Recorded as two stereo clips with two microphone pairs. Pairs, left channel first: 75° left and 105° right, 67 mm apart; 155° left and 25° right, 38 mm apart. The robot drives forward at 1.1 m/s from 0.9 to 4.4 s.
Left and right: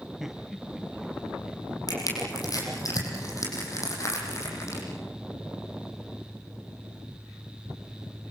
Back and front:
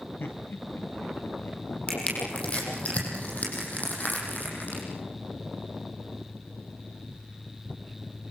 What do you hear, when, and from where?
0.2 s laughter: 170° left, 3.5 m; by 2.8 s 175° left, 5.5 m
1.9 s crushing: 95° left, 7.5 m; by 4.8 s 115° left, 8.5 m